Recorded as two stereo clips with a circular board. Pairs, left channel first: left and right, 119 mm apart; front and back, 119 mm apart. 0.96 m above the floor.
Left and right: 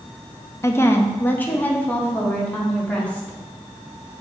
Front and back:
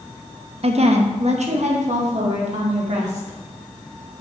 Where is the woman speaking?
155° left, 0.6 m; by 4.2 s 170° left, 2.5 m.